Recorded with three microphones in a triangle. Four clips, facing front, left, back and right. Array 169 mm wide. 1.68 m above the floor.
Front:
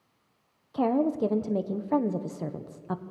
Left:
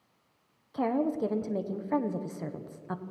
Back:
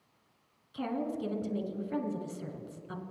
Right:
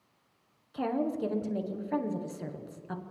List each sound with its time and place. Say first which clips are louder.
0.7 s a woman speaking: left 2 dB, front 10 dB; 5° left, 1.3 m